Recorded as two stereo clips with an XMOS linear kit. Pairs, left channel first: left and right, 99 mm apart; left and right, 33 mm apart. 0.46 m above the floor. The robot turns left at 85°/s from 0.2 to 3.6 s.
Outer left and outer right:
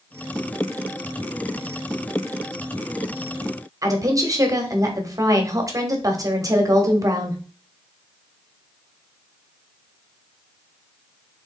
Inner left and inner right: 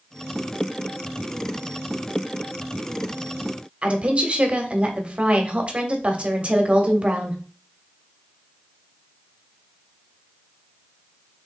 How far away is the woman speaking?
About 1.0 m.